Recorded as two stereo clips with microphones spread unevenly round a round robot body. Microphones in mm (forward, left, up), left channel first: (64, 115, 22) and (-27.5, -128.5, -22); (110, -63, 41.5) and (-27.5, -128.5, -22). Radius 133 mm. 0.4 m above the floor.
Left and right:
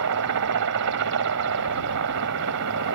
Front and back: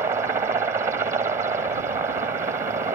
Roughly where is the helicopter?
Right.